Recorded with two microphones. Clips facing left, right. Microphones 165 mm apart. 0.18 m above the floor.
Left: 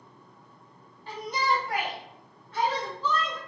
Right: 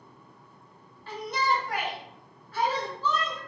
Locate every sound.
1.1 s a shout: 20° left (ahead or behind), 1.5 m; by 3.4 s 15° right (ahead or behind), 1.7 m